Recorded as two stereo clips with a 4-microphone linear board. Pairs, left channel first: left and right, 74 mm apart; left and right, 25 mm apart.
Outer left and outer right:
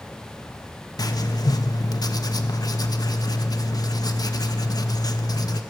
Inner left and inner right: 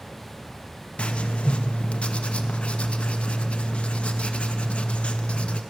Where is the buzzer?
I don't hear a buzzer.